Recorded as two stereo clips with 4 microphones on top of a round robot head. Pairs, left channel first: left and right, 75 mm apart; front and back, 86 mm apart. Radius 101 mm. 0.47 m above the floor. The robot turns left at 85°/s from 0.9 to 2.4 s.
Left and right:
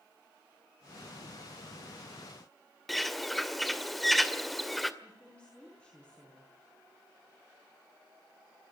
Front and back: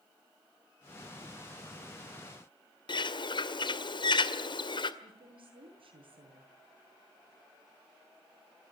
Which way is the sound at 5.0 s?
170° left.